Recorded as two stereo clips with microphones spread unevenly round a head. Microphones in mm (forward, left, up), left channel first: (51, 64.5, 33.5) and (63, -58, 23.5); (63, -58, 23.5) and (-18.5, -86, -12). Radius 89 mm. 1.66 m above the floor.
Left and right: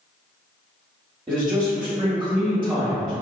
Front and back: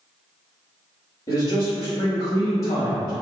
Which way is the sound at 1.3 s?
20° right.